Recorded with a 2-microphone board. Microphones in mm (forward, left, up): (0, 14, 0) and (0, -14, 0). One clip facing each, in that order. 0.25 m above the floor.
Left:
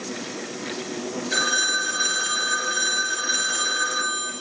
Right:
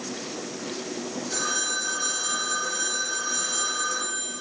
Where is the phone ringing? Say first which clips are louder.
Left 7 dB; 65° left (ahead or behind), 3.5 m.